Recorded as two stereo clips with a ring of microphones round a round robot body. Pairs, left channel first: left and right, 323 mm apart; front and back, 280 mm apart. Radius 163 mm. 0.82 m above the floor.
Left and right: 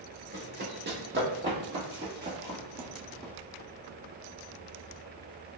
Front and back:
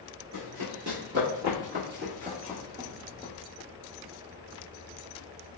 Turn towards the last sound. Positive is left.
turn(degrees=-65)